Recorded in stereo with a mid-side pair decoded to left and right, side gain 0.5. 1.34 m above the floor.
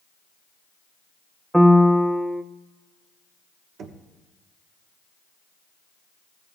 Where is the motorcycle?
No motorcycle in this recording.